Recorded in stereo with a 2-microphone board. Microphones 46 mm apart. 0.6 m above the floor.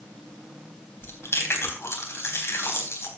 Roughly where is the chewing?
Left.